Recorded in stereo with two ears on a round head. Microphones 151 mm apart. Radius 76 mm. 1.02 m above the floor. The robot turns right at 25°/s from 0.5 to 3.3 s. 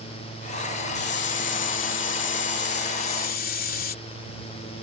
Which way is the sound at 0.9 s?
65° left.